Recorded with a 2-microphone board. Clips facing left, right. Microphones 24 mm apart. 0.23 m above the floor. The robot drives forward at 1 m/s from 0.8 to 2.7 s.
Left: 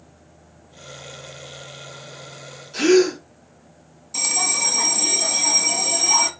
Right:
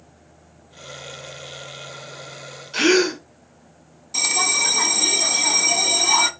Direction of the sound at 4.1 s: 20° right (ahead or behind).